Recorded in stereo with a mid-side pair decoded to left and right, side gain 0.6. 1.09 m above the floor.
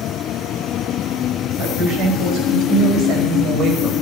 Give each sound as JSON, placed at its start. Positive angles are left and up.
{"t": 1.6, "sound": "a woman speaking", "azimuth_deg": -65, "distance_m": 5.5}